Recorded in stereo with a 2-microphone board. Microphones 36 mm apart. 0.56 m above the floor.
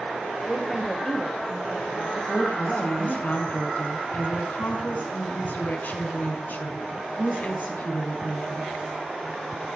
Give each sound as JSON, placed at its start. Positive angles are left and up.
{"t": 0.5, "sound": "a woman speaking", "side_deg": -10, "distance_m": 2.5}
{"t": 2.3, "sound": "a woman speaking", "side_deg": 55, "distance_m": 6.5}